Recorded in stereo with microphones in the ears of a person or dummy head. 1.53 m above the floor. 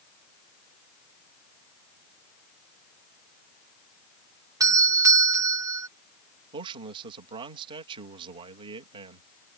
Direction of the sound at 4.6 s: 20° right (ahead or behind).